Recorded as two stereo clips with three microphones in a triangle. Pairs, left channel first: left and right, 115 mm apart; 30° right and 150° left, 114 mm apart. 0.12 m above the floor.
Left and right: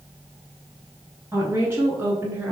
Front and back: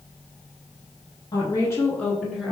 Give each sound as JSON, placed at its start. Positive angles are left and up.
{"t": 1.3, "sound": "a woman speaking", "azimuth_deg": -35, "distance_m": 1.3}